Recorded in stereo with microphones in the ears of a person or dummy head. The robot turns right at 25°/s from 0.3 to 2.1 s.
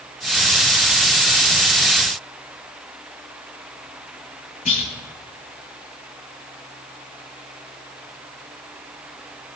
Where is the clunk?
40° left (ahead or behind), 5.5 m.